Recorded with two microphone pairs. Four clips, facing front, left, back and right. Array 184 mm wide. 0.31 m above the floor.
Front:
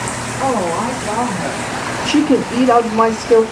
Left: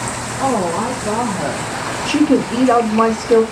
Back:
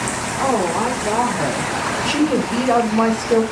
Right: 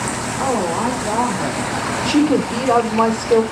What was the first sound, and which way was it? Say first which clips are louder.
A woman speaking: left 2 dB, front 1 dB; 145° left.